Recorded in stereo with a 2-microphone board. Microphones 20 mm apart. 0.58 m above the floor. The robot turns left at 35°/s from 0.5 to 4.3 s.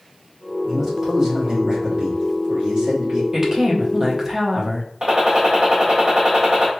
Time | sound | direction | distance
0.6 | a man speaking | straight ahead | 1.9 m
3.3 | a woman speaking | 25° right (ahead or behind) | 0.7 m
5.0 | a gunshot | 45° right (ahead or behind) | 1.3 m